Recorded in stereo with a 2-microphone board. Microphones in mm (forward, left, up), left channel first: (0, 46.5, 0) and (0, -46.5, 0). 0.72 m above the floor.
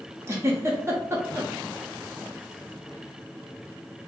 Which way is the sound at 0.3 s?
30° right (ahead or behind).